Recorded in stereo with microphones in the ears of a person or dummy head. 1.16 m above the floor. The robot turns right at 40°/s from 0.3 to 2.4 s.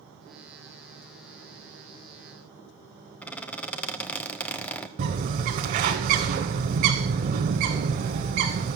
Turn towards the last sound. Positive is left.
turn(degrees=-35)  # may be behind; listen again after turning